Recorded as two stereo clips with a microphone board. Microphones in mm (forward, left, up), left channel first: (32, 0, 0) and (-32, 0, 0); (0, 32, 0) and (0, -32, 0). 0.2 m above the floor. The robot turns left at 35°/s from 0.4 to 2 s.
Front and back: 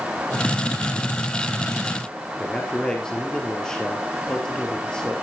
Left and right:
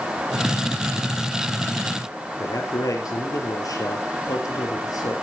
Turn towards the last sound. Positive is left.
turn(degrees=75)